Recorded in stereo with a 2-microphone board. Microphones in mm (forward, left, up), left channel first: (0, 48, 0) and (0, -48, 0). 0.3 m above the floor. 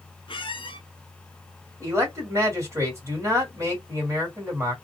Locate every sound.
0.3 s a squeak: 65° left (ahead or behind), 0.5 m
1.8 s a man speaking: 30° right (ahead or behind), 1.9 m